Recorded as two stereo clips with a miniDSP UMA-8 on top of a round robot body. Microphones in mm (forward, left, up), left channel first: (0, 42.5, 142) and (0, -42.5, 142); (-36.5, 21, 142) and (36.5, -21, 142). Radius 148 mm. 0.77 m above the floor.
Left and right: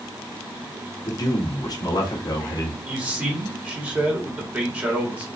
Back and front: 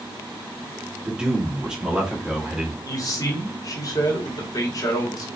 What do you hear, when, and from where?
1.1 s a man speaking: 50° left, 1.7 m
2.8 s a man speaking: 165° right, 2.0 m